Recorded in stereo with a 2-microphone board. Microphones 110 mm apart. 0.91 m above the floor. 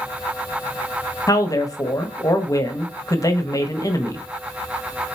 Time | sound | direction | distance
1.3 | a man speaking | 30° left (ahead or behind) | 1.2 m